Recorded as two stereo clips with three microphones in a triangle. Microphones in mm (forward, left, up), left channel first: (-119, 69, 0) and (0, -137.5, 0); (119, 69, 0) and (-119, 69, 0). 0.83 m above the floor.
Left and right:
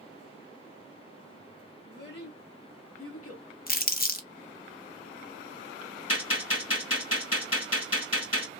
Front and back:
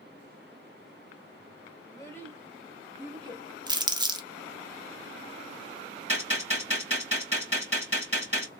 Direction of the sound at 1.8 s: 75° left.